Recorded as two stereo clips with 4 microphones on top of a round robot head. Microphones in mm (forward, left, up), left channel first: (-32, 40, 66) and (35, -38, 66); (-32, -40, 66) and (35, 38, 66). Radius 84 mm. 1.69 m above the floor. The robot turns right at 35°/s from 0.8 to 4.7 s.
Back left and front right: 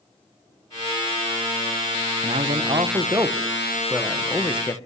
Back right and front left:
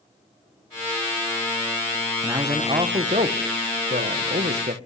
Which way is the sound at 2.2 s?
15° right.